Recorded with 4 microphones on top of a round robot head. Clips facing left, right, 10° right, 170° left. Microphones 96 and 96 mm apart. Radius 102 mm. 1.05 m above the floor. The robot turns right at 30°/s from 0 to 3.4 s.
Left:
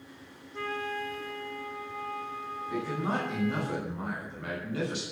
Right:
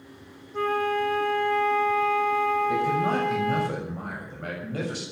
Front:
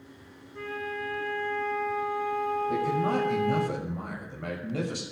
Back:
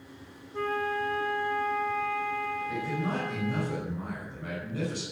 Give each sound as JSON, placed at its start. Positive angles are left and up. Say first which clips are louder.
{"t": 0.5, "sound": "a flute", "louder": "right 10 dB, back 5 dB", "azimuth_deg": -135, "distance_m": 0.8}
{"t": 2.7, "sound": "a man speaking", "louder": "right 8 dB, front 5 dB", "azimuth_deg": -60, "distance_m": 6.5}